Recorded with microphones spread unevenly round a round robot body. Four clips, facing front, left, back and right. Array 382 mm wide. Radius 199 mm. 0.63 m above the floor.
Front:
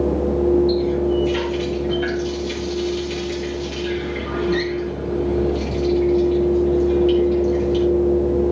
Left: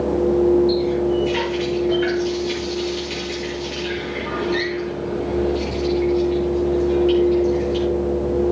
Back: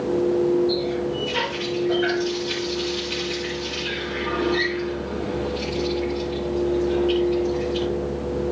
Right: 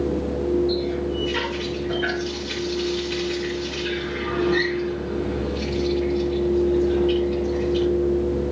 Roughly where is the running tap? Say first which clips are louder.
Left 6 dB, front 5 dB; ahead.